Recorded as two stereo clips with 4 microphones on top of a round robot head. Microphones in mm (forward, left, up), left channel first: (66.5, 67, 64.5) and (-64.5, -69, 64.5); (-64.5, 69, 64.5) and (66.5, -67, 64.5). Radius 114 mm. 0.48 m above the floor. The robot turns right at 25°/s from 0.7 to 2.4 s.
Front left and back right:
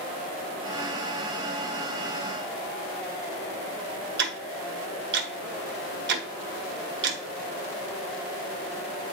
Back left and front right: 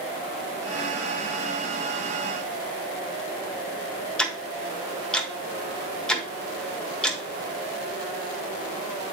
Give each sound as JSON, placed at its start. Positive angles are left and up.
{"t": 4.2, "sound": "ticking", "azimuth_deg": -140, "distance_m": 1.3}